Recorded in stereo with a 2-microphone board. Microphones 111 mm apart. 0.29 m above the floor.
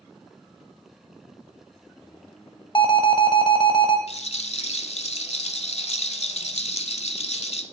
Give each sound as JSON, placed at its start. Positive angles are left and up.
{"t": 2.8, "sound": "an alarm", "side_deg": 45, "distance_m": 0.9}
{"t": 4.1, "sound": "a rattle", "side_deg": 80, "distance_m": 0.8}